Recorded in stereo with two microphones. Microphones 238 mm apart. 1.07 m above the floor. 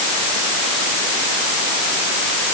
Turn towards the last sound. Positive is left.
No sound to turn to.